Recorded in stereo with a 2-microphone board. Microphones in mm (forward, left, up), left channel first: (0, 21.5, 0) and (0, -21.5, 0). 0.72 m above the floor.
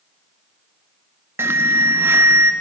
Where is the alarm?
70° right (ahead or behind), 0.8 m.